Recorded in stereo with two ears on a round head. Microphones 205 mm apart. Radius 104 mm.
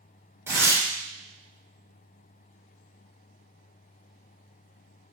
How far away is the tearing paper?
About 1.1 m.